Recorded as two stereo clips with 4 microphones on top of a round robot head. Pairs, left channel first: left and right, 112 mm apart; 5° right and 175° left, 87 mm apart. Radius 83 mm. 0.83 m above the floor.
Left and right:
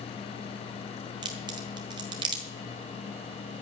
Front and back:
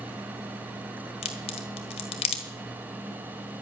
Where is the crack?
30° right, 1.5 m.